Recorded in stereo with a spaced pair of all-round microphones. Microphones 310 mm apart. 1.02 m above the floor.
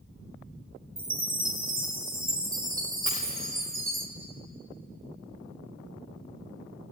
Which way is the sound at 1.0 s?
45° right (ahead or behind).